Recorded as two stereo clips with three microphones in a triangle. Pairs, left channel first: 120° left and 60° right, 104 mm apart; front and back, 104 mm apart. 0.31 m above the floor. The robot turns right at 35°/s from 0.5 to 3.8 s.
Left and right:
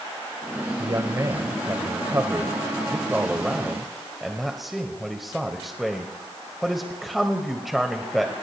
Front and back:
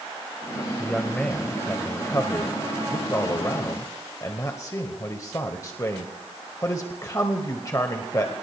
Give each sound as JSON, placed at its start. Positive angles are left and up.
{"t": 0.8, "sound": "a man speaking", "azimuth_deg": -80, "distance_m": 1.2}